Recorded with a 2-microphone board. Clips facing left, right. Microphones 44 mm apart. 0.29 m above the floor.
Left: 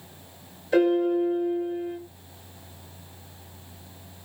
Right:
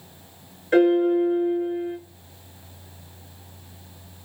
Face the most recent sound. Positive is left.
turn(degrees=-45)  # may be behind; listen again after turning